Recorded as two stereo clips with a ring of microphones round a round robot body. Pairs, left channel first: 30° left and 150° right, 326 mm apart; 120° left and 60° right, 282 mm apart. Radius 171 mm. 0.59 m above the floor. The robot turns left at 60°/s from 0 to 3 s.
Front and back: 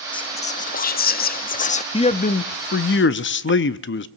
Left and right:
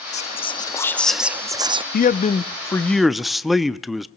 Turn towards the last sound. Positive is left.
turn(degrees=30)